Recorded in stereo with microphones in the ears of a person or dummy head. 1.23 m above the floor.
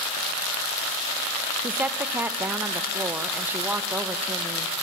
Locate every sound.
1.6 s a woman speaking: 10° right (ahead or behind), 0.7 m